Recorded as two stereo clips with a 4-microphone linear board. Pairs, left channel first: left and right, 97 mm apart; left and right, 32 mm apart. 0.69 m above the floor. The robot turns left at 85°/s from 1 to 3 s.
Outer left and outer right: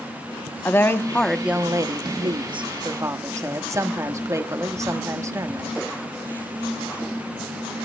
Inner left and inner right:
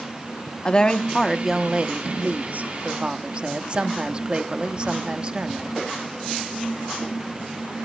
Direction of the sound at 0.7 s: 25° left.